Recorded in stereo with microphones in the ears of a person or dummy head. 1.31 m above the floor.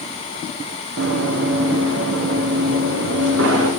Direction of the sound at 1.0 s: 65° right (ahead or behind).